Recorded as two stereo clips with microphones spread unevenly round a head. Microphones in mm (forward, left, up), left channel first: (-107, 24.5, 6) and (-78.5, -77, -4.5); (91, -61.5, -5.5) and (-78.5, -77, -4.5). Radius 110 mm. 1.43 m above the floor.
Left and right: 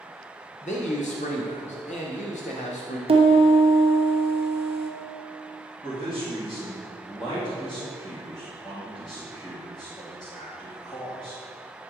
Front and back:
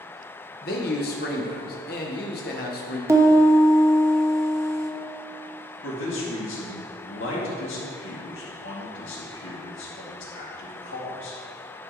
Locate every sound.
0.6 s a man speaking: 55° left, 0.9 m
3.1 s a piano: 100° right, 1.2 m
5.8 s a man speaking: 35° left, 2 m